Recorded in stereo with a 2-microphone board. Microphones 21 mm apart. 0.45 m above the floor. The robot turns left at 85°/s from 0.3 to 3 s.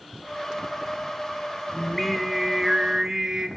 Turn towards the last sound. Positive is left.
turn(degrees=-70)